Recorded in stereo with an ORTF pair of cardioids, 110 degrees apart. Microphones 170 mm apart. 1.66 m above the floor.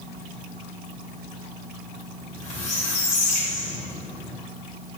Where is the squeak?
40° left, 1.8 m.